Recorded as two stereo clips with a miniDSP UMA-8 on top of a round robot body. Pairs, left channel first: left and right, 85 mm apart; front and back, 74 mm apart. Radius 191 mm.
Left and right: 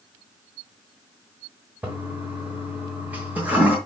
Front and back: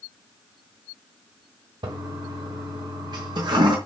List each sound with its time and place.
1.8 s a toilet flushing: 165° right, 1.1 m